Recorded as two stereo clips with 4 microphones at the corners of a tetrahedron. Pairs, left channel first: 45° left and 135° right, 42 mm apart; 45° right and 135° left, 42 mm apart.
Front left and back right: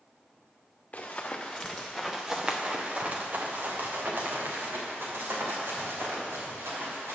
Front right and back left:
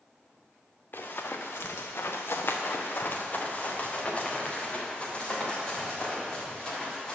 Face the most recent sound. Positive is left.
turn(degrees=-120)